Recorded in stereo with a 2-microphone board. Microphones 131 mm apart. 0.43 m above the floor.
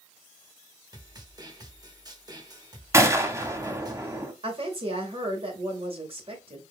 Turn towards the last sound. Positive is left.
turn(degrees=-45)  # may be behind; listen again after turning